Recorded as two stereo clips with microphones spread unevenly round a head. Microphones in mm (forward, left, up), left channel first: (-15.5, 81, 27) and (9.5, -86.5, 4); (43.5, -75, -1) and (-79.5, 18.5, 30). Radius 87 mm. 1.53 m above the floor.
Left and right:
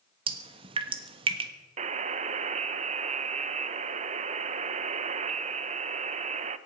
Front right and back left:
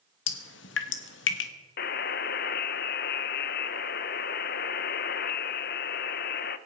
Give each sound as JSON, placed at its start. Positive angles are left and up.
{"t": 0.3, "sound": "dripping", "azimuth_deg": -20, "distance_m": 1.3}
{"t": 1.8, "sound": "a buzzer", "azimuth_deg": -35, "distance_m": 0.7}